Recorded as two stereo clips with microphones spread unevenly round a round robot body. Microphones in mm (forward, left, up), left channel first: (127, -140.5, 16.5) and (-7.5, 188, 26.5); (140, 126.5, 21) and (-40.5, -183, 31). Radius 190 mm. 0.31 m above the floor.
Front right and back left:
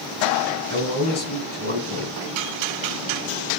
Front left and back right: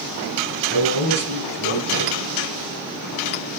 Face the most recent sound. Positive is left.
turn(degrees=0)